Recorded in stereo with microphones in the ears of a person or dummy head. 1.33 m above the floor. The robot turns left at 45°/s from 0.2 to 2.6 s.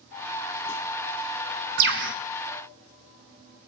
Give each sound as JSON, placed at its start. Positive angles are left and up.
{"t": 1.8, "sound": "a bird", "side_deg": -50, "distance_m": 0.8}